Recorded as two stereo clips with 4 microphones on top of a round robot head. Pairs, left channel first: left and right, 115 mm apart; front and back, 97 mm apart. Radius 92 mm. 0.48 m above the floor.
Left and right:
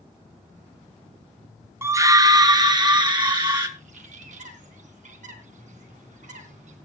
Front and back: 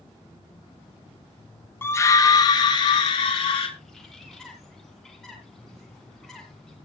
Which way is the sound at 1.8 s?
45° right.